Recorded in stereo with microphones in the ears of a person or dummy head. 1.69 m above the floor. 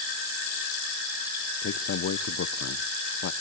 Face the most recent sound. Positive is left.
turn(degrees=65)  # may be behind; listen again after turning